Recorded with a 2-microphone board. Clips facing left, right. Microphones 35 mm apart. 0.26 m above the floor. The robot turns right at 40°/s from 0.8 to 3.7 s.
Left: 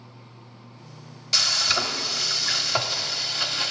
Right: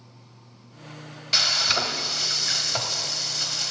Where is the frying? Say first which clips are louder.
Even; 30° right, 0.7 m; by 3.7 s 65° left, 0.7 m.